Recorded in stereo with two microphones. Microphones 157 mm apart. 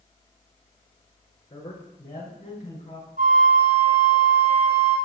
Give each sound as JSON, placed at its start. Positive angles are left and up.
{"t": 1.5, "sound": "a man speaking", "side_deg": 30, "distance_m": 5.0}
{"t": 3.2, "sound": "a flute", "side_deg": -60, "distance_m": 3.0}